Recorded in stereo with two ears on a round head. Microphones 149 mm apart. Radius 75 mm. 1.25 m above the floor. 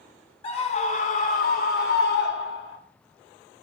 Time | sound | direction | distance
0.4 | a scream | 35° left (ahead or behind) | 3.5 m